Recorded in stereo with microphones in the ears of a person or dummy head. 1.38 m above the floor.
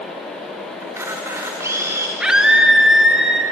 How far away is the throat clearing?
I don't hear throat clearing.